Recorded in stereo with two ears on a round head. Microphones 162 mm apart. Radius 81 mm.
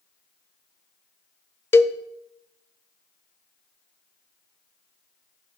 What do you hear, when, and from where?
1.7 s a cowbell: 15° left (ahead or behind), 0.6 m